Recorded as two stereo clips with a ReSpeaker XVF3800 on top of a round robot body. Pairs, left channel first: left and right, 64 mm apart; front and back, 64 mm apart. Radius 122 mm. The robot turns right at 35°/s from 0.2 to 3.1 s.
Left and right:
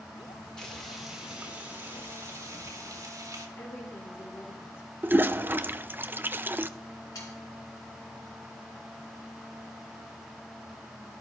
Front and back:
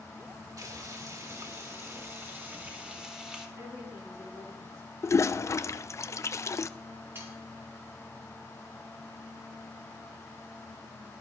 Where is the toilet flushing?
35° right, 0.6 m.